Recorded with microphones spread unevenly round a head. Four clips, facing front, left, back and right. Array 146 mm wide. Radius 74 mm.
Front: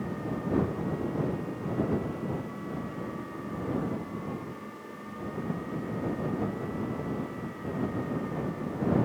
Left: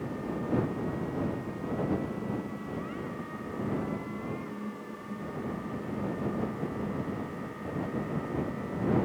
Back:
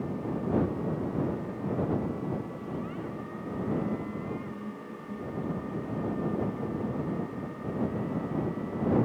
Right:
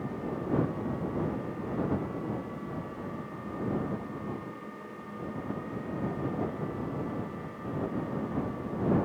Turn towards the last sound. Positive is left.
No sound to turn to.